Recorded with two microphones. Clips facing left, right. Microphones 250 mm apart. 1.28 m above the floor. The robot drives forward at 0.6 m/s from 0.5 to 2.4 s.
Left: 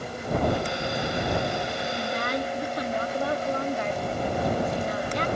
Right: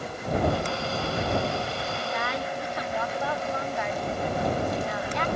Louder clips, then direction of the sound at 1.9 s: Left 3 dB; 45° left (ahead or behind).